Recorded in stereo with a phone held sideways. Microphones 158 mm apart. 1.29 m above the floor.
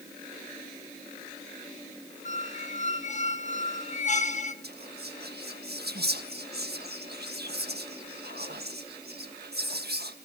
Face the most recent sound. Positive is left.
turn(degrees=-80)